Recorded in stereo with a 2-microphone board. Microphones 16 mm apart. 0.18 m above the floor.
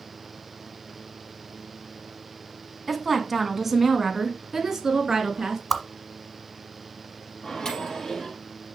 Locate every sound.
2.9 s a woman speaking: centre (ahead or behind), 1.5 m; by 5.6 s 35° right (ahead or behind), 2.5 m
5.7 s a whoosh: 5° left (ahead or behind), 1.1 m
7.4 s a microwave: 40° left (ahead or behind), 3.5 m